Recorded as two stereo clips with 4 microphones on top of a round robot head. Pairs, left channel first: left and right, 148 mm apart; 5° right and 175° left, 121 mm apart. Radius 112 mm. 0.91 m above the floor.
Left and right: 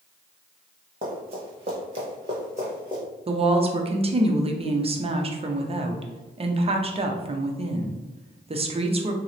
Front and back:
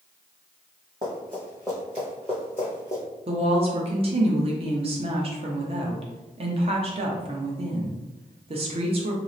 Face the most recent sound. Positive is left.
turn(degrees=-140)